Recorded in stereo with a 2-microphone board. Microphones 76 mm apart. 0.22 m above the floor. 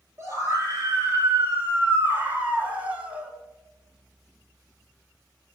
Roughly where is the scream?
Right.